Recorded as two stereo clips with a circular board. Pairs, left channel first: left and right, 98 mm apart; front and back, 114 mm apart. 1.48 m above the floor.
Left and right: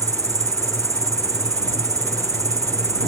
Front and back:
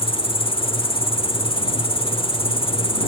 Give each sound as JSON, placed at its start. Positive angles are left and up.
{"t": 0.0, "sound": "an insect", "azimuth_deg": -35}